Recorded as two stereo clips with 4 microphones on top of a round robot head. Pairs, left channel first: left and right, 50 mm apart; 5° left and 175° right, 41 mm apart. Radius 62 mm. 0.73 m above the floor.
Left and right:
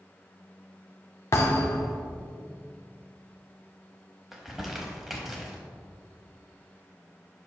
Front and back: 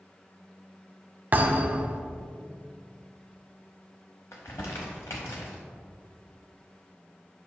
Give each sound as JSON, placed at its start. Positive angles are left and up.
{"t": 1.3, "sound": "a thud", "azimuth_deg": 140, "distance_m": 0.7}
{"t": 4.3, "sound": "crumpling", "azimuth_deg": -5, "distance_m": 0.7}